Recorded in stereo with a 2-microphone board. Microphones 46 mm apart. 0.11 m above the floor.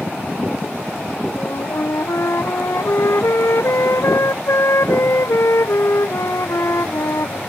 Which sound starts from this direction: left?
A flute, at 1.4 s.